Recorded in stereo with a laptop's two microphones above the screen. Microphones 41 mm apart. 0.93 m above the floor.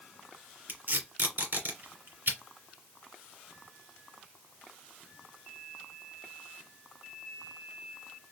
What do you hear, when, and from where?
0.7 s tape being pulled: 55° right (ahead or behind), 2 m